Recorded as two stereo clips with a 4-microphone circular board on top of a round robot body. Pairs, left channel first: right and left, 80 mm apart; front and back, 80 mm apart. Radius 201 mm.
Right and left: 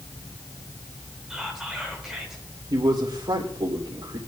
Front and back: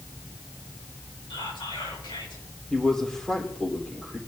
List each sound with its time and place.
1.3 s whispering: 5° left, 7 m
2.7 s a man speaking: 80° left, 3.5 m